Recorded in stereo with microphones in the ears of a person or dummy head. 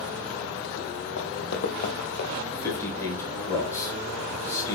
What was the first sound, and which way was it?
Running footsteps, 55° left (ahead or behind).